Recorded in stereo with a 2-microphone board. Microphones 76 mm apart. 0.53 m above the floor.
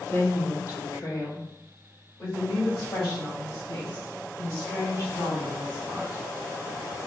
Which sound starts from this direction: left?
A woman speaking, at 0.1 s.